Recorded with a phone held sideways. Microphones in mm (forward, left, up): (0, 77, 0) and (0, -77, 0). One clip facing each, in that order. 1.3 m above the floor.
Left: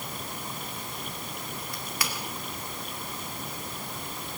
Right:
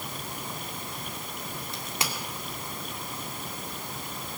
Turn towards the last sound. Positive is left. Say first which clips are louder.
# right 1 dB
turn(degrees=-25)  # may be behind; listen again after turning